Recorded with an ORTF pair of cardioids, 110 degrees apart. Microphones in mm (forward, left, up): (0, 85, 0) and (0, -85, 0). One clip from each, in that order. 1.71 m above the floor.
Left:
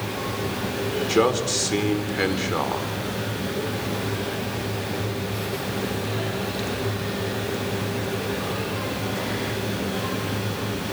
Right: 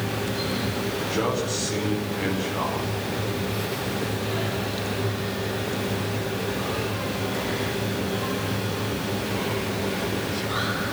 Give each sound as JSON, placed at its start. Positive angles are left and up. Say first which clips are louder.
{"t": 1.1, "sound": "a man speaking", "louder": "left 7 dB", "azimuth_deg": 60, "distance_m": 5.0}